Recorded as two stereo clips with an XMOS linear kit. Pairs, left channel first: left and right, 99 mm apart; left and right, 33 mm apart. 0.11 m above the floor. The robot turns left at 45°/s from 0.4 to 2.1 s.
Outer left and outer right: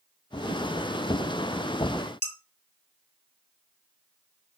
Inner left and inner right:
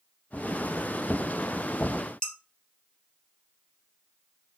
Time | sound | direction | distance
2.2 | dishes clattering | 15° left (ahead or behind) | 1.8 m